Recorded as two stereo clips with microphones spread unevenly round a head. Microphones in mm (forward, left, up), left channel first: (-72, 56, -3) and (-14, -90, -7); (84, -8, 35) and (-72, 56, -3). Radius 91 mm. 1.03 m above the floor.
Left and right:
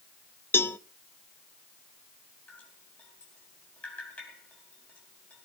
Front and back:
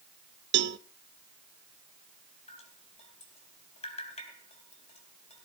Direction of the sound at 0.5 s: 170° right.